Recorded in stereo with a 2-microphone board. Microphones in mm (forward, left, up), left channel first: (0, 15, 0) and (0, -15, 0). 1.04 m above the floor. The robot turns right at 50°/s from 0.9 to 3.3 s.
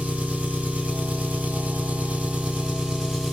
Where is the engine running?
125° right, 1.3 m; by 3.3 s 5° right, 1.3 m.